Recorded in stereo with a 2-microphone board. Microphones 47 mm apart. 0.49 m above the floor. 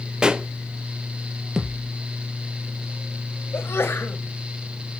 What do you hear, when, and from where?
0.2 s a pop: 20° right (ahead or behind), 0.8 m
1.6 s a thud: 10° right (ahead or behind), 2 m
3.5 s a sneeze: 65° left (ahead or behind), 1.8 m